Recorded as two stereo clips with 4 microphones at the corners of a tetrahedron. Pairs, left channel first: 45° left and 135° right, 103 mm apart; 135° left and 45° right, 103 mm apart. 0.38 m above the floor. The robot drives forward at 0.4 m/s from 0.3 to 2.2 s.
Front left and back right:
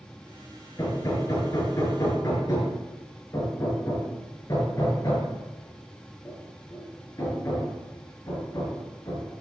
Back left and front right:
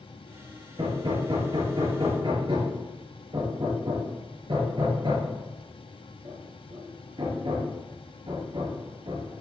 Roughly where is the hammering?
Ahead.